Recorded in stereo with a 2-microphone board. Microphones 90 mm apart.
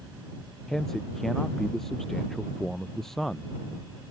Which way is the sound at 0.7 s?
5° left (ahead or behind).